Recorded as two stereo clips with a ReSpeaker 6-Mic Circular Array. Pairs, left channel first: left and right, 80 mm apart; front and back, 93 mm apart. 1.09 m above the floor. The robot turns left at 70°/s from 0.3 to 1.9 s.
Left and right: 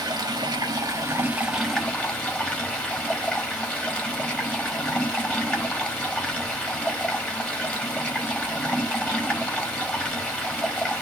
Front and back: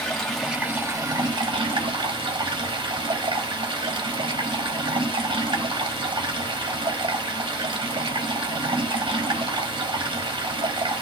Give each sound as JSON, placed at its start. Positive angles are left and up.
{"t": 0.0, "sound": "running water", "azimuth_deg": -85, "distance_m": 0.8}